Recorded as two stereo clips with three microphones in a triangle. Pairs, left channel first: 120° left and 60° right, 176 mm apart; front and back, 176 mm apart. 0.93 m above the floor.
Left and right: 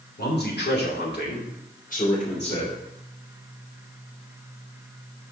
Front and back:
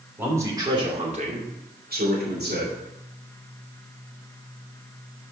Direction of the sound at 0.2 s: 100° left.